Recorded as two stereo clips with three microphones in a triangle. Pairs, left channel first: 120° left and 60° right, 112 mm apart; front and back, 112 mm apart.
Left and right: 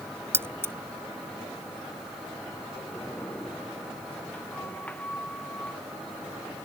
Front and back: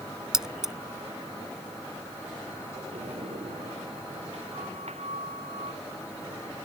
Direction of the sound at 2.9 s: 160° right.